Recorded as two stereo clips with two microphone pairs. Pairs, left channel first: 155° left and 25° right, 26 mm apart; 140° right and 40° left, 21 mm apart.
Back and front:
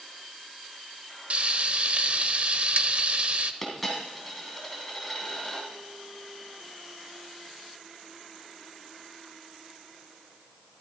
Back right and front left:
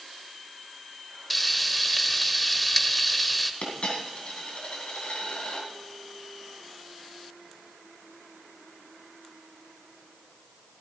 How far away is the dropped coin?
About 2.5 m.